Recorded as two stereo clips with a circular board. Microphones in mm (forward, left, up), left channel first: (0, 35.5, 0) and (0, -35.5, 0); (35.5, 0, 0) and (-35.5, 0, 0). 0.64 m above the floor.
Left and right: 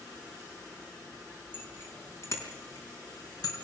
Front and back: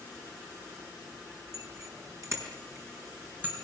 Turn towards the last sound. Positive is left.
turn(degrees=115)